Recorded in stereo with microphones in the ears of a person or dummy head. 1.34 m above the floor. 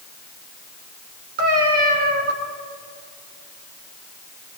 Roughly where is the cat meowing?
Right.